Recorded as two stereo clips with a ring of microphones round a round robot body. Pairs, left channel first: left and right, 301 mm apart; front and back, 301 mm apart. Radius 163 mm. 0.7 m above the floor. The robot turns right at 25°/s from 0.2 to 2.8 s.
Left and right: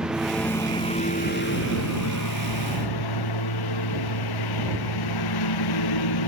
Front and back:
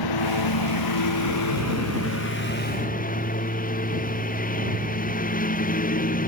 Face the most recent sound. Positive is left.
turn(degrees=65)